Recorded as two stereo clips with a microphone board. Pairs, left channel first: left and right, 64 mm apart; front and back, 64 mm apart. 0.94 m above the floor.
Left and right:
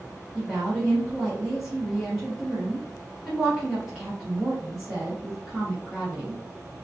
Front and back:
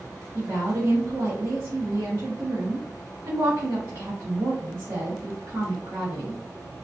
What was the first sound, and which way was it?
A woman speaking, 170° right.